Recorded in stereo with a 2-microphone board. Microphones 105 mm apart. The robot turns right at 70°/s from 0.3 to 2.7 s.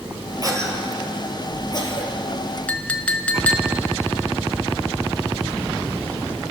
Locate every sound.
0.4 s a cough: 35° right (ahead or behind), 2 m; by 2.1 s 60° left (ahead or behind), 2 m
2.7 s a clink: 15° left (ahead or behind), 0.6 m